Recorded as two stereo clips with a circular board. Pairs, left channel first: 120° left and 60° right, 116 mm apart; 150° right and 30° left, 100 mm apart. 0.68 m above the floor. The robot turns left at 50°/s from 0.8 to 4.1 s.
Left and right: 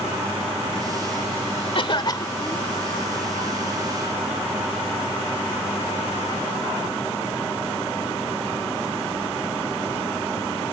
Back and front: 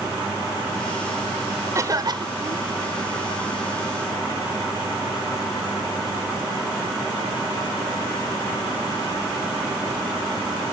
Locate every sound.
1.8 s a cough: 85° left; by 2.7 s 40° left